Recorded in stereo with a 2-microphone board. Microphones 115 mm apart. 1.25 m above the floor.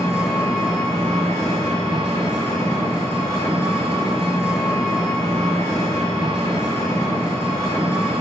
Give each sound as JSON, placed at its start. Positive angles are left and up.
{"t": 0.0, "sound": "an engine running", "side_deg": -60, "distance_m": 1.3}